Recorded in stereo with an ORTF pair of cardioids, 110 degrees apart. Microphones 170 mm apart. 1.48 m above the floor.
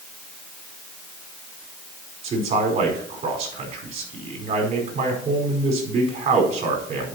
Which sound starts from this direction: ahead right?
A man speaking, at 2.2 s.